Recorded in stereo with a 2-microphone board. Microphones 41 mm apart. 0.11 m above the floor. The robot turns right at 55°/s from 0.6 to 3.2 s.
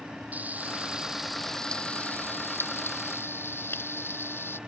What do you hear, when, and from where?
0.3 s frying: 40° right (ahead or behind); by 4.6 s 70° left (ahead or behind)